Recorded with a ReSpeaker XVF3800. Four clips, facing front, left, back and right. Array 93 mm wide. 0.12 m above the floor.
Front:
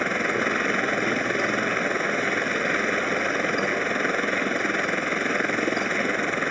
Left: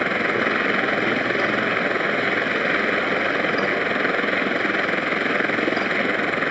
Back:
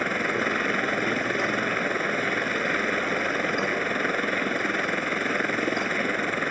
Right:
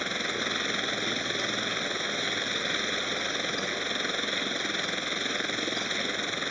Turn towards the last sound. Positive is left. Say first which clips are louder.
# left 11 dB, front 1 dB
turn(degrees=75)